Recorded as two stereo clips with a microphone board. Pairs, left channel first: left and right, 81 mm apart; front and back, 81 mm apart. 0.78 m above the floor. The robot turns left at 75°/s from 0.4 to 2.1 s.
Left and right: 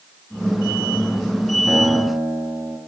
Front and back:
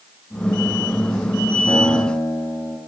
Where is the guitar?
Straight ahead, 4 m; by 2.8 s 35° right, 4 m.